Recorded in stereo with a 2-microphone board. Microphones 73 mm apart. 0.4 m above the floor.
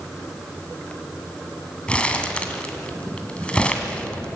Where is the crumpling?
15° left (ahead or behind), 2 m.